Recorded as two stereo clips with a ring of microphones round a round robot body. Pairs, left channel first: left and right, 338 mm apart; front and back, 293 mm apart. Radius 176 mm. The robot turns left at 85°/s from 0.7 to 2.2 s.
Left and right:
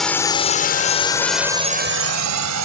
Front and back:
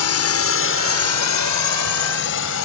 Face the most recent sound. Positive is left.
turn(degrees=-50)